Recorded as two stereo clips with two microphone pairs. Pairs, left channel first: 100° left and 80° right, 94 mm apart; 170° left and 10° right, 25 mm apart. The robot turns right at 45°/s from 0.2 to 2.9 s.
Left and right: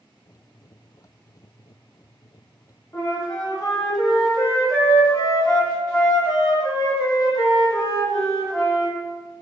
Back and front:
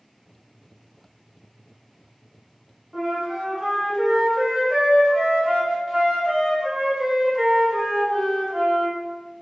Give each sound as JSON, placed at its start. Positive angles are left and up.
{"t": 2.9, "sound": "a flute", "azimuth_deg": 60, "distance_m": 1.3}